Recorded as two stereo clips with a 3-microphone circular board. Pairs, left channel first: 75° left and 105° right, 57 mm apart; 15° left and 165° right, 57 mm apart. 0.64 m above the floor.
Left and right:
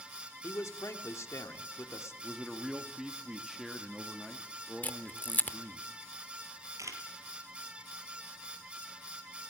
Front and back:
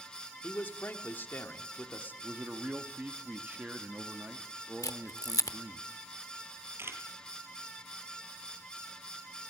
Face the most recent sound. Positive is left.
turn(degrees=-125)